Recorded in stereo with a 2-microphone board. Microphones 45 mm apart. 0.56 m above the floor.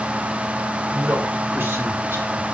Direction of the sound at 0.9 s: 55° right (ahead or behind).